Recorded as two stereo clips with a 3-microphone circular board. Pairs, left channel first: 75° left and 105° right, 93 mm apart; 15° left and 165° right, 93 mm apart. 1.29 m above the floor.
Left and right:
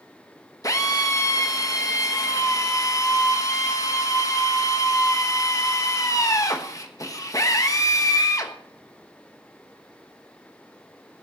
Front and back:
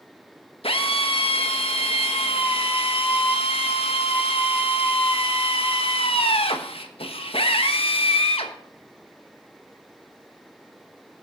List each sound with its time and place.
0.6 s a drill: 20° left, 1.5 m